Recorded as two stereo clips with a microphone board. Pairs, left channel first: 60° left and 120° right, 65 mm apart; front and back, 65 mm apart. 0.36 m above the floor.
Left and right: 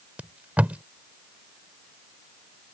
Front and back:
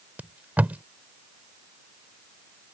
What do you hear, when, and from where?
0.2 s tape being pulled: 155° right